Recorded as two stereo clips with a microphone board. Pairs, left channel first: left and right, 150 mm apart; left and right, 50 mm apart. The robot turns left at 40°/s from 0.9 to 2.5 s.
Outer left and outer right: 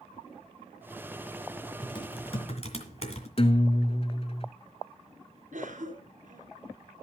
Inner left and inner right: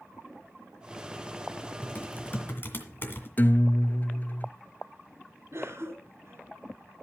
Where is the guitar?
40° left (ahead or behind), 0.8 m.